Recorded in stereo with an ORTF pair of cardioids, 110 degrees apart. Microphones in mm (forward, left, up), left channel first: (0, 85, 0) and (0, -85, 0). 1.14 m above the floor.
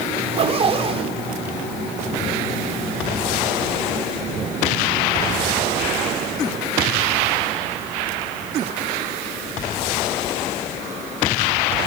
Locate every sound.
0.2 s a zipper: 35° right, 3.5 m